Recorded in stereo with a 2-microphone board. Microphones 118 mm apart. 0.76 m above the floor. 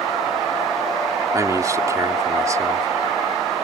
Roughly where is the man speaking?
Right.